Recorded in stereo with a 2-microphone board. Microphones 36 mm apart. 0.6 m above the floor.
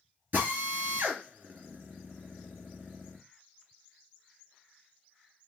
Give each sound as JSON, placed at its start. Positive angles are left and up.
{"t": 0.3, "sound": "a drill", "side_deg": -60, "distance_m": 3.0}